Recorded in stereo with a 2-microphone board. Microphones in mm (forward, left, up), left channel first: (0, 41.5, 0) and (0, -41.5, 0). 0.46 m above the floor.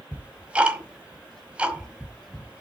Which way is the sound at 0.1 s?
15° right (ahead or behind).